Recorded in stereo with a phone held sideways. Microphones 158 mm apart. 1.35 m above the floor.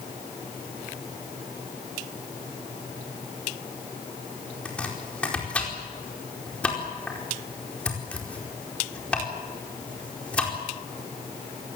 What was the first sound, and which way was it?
Chopping, 5° left (ahead or behind).